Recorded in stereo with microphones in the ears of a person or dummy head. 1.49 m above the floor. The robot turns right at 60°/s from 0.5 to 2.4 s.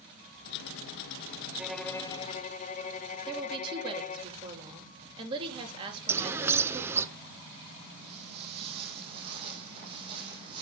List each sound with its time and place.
1.6 s a violin: 10° right, 1.3 m; by 4.3 s 40° left, 1.3 m
3.3 s a woman speaking: 30° right (ahead or behind), 3.5 m
6.1 s a bird: 15° right (ahead or behind), 0.8 m
8.0 s footsteps: 35° right (ahead or behind), 3 m; by 10.6 s 30° right (ahead or behind), 4 m